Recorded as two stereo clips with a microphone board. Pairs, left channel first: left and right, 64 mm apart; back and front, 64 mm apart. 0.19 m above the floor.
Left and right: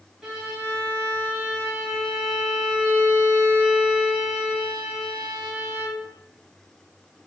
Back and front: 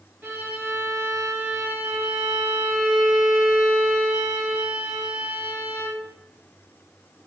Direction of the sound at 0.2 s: 15° right.